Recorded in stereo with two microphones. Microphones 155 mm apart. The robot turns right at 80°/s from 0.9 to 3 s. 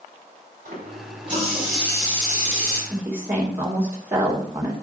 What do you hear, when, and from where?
0.7 s a running tap: 65° right, 5 m; by 2.8 s 85° left, 5 m
2.9 s a woman speaking: 5° right (ahead or behind), 2.5 m; by 4.7 s 15° right (ahead or behind), 2.5 m